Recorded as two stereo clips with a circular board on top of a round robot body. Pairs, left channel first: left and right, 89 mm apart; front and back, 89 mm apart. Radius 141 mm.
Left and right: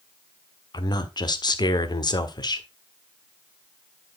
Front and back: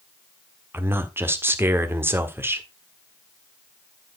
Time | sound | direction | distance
0.7 | a man speaking | 120° left | 1.6 m